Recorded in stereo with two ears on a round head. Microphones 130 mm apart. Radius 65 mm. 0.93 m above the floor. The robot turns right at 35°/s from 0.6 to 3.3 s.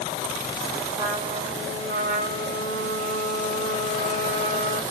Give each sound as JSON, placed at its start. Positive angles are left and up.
{"t": 1.0, "sound": "a trumpet", "azimuth_deg": -150, "distance_m": 1.6}